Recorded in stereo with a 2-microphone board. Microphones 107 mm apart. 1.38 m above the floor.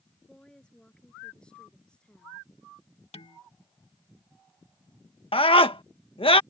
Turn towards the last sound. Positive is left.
turn(degrees=60)  # may be behind; listen again after turning